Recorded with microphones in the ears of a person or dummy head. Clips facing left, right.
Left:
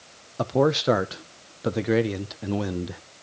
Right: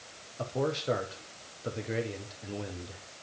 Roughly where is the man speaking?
Left.